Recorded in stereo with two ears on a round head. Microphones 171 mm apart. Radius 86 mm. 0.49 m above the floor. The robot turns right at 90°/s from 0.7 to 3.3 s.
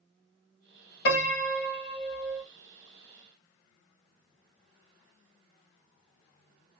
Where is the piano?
60° left, 1.7 m; by 2.5 s 170° right, 1.7 m.